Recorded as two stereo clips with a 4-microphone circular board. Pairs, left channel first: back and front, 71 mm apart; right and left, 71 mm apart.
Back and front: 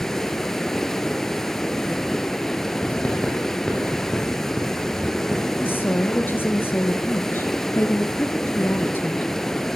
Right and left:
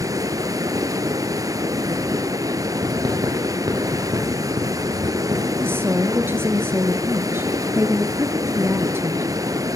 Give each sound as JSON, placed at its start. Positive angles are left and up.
{"t": 0.0, "sound": "running water", "azimuth_deg": 100, "distance_m": 1.0}
{"t": 2.8, "sound": "writing", "azimuth_deg": 110, "distance_m": 5.0}
{"t": 5.6, "sound": "a woman speaking", "azimuth_deg": 135, "distance_m": 1.8}